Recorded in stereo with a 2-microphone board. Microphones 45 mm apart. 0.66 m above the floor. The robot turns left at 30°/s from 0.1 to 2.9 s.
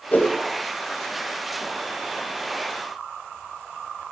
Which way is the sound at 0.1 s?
35° left (ahead or behind).